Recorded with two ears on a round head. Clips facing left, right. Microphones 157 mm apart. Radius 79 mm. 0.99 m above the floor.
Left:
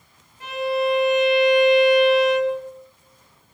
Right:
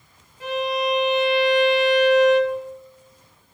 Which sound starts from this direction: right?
A violin, at 0.4 s.